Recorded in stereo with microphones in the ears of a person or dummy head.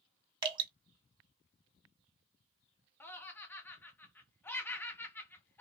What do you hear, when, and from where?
0.4 s dripping: 30° right (ahead or behind), 1.6 m
3.0 s laughter: 10° left (ahead or behind), 0.7 m